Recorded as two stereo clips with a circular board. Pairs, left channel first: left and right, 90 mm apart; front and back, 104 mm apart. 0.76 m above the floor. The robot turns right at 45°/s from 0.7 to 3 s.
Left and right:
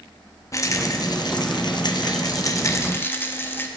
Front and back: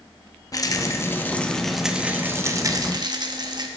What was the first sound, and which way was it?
A rattle, 45° left.